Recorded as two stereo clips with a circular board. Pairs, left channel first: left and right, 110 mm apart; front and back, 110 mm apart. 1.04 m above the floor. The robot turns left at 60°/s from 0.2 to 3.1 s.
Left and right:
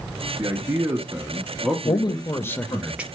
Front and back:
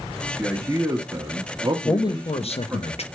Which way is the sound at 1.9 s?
55° left.